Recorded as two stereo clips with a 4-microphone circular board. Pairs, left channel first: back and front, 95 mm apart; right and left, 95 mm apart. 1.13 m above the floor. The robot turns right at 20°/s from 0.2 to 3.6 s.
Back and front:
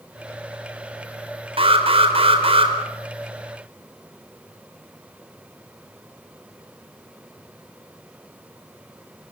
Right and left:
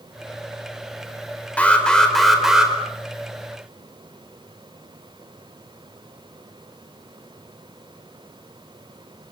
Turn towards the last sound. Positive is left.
turn(degrees=25)